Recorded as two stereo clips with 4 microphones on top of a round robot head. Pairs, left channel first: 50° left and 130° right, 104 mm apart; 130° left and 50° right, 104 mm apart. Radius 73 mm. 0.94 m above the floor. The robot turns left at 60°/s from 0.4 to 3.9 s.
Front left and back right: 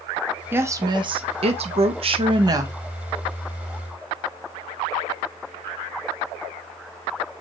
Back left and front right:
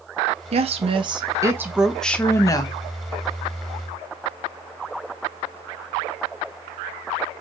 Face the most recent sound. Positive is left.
turn(degrees=100)